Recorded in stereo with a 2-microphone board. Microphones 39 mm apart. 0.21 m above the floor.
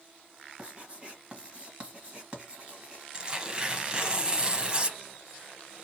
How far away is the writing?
About 1.5 m.